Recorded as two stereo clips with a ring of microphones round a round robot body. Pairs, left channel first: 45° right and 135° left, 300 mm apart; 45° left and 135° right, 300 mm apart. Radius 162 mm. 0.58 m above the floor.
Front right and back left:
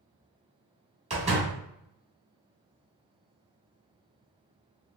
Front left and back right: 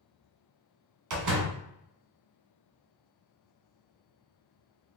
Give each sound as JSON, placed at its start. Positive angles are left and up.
{"t": 1.1, "sound": "a door slam", "azimuth_deg": -155, "distance_m": 1.1}